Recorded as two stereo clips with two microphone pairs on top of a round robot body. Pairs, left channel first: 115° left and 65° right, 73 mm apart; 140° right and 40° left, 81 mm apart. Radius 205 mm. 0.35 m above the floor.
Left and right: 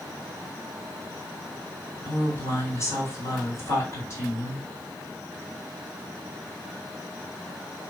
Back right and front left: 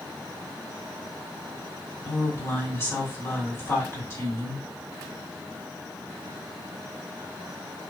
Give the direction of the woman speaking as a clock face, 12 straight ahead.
7 o'clock.